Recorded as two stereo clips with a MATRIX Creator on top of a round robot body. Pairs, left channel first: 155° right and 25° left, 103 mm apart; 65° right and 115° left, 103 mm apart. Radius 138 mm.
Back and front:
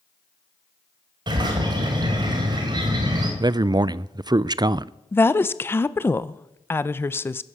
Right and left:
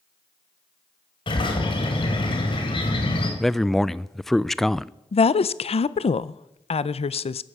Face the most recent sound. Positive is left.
turn(degrees=-90)